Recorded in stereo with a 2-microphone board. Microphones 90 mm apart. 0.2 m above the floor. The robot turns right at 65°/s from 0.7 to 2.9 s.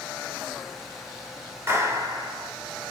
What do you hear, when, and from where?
1.7 s a clap: 135° right, 1.3 m; by 2.5 s 80° right, 1.3 m